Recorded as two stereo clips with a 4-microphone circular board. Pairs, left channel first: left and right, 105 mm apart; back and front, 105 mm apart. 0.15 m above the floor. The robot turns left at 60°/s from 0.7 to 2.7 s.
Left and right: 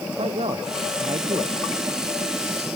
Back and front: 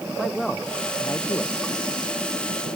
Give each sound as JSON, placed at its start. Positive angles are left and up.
{"t": 0.2, "sound": "a man speaking", "azimuth_deg": -90}